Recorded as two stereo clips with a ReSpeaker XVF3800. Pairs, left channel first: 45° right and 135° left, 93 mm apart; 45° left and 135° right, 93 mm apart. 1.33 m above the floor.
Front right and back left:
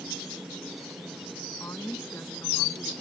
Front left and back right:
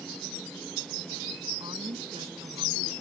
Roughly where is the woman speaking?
Right.